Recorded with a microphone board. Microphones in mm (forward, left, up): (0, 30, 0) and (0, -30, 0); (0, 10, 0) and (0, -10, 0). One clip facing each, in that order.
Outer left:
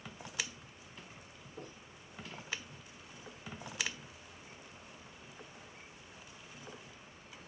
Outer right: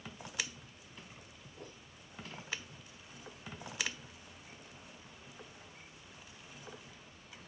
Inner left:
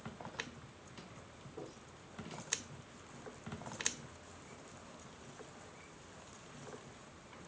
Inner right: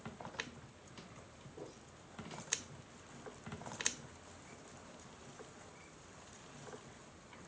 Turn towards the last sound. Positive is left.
turn(degrees=30)  # may be behind; listen again after turning